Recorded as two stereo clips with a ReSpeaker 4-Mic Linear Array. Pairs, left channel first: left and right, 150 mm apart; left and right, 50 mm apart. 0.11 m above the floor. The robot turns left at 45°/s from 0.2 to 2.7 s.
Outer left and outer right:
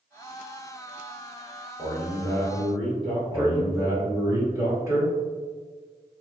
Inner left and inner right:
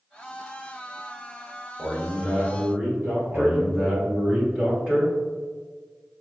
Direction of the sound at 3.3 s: 25° right (ahead or behind).